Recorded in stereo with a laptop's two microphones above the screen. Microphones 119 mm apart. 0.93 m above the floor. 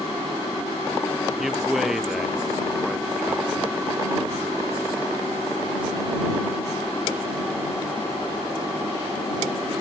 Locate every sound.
1.4 s a man speaking: centre (ahead or behind)